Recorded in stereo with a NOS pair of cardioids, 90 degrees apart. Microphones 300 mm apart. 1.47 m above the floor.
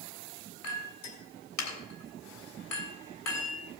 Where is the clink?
60° left, 3.5 m.